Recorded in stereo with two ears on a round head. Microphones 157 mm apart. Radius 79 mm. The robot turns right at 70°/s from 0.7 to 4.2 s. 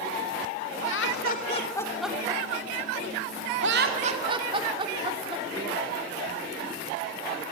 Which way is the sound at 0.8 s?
80° left.